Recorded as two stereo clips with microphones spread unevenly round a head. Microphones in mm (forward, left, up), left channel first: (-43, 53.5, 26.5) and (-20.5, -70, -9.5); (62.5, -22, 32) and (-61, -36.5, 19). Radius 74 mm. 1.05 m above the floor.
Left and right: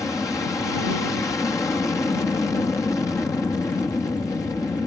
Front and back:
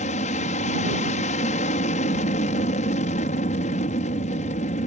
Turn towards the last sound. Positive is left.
turn(degrees=25)